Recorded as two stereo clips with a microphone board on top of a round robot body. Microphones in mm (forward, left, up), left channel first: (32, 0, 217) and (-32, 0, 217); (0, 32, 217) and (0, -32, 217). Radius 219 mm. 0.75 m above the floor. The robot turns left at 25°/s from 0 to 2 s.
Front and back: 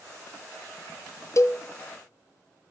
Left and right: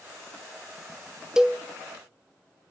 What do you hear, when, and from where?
1.4 s a cowbell: 10° right, 0.6 m; by 1.6 s 15° right, 0.6 m